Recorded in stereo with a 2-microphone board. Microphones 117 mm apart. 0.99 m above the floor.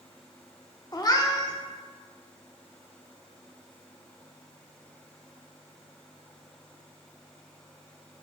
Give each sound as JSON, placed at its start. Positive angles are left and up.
{"t": 0.9, "sound": "a cat meowing", "side_deg": 35, "distance_m": 0.6}